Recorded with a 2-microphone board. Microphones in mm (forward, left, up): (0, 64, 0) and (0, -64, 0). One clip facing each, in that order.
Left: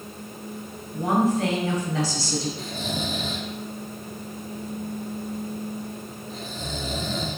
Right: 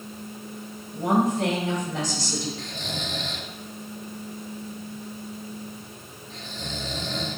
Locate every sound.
0.9 s a woman speaking: 15° right (ahead or behind), 3 m
2.6 s snoring: 5° left (ahead or behind), 0.7 m